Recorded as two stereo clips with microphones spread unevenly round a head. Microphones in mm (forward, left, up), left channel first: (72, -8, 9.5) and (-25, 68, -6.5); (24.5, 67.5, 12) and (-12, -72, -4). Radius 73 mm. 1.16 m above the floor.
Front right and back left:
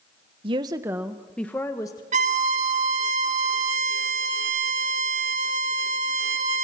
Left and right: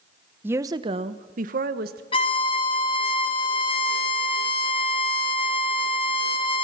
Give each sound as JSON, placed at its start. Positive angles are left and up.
{"t": 0.4, "sound": "a woman speaking", "azimuth_deg": -175, "distance_m": 1.0}
{"t": 2.1, "sound": "a violin", "azimuth_deg": 135, "distance_m": 1.3}